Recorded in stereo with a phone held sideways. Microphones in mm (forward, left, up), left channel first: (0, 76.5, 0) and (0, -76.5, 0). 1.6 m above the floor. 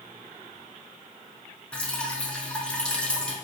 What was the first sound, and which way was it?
Dripping, 5° left (ahead or behind).